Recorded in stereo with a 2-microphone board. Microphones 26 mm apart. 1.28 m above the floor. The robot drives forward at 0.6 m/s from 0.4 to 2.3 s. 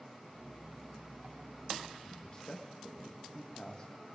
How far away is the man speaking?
About 1.8 m.